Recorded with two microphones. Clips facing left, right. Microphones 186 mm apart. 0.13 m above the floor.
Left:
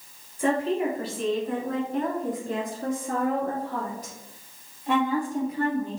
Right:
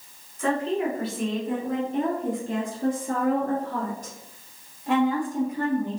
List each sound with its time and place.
0.4 s a woman speaking: 15° left (ahead or behind), 1.4 m; by 6.0 s 60° right (ahead or behind), 3.5 m